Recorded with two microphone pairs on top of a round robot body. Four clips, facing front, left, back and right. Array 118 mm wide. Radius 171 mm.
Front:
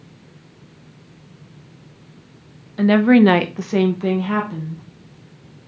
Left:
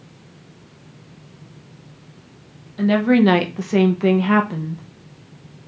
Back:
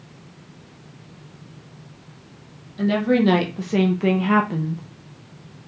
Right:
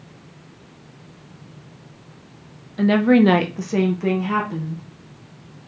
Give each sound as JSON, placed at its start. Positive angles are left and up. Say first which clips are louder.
{"t": 2.8, "sound": "a woman speaking", "louder": "right 1 dB, front 6 dB", "azimuth_deg": -10, "distance_m": 1.0}